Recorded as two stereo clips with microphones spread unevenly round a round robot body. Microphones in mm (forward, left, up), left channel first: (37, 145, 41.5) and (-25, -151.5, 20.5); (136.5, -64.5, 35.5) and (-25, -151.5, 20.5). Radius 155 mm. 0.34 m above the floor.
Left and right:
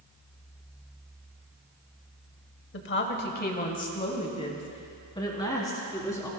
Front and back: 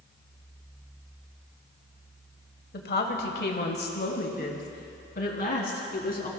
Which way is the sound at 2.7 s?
40° left.